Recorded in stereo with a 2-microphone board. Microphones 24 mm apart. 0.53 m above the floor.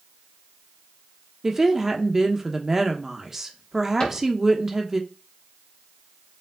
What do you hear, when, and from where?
1.4 s a woman speaking: 15° right (ahead or behind), 0.7 m
4.0 s a cupboard door: 35° left (ahead or behind), 3 m